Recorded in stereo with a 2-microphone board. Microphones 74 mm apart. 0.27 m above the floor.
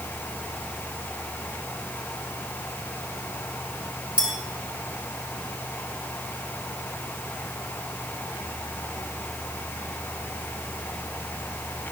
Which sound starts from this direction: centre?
A clink, at 4.2 s.